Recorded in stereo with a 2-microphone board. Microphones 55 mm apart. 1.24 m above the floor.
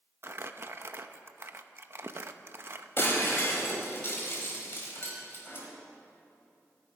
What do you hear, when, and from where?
0.2 s crumpling: 45° right (ahead or behind), 0.7 m
3.0 s breaking glass: 45° left (ahead or behind), 3.5 m